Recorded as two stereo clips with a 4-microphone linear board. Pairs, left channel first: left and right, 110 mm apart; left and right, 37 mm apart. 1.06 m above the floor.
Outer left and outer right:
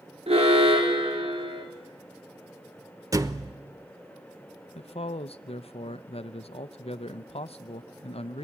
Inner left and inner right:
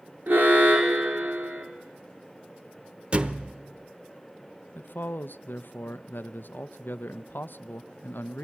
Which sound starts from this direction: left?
A man speaking, at 4.8 s.